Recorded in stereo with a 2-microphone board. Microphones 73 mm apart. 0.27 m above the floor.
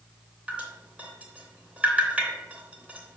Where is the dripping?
15° right (ahead or behind), 3 m.